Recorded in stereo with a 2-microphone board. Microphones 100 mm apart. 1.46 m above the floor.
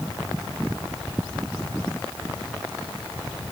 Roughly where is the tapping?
I don't hear tapping.